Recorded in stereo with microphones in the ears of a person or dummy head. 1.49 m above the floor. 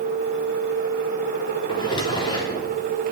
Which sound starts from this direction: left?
A drawer, at 1.7 s.